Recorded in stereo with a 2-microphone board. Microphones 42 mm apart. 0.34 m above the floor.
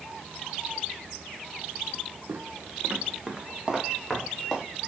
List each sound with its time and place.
2.3 s footsteps: 60° right (ahead or behind), 1.5 m; by 4.6 s 5° left (ahead or behind), 4 m